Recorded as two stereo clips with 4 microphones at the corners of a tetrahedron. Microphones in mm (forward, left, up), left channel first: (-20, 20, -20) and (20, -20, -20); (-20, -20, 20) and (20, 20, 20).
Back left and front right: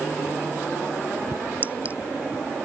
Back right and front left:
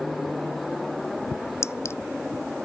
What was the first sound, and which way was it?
A clink, 105° right.